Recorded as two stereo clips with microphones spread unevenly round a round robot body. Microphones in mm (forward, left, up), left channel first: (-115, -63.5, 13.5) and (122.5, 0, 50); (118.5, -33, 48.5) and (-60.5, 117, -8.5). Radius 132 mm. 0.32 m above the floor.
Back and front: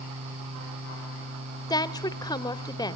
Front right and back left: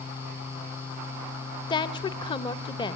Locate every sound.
1.7 s a woman speaking: 120° right, 1.0 m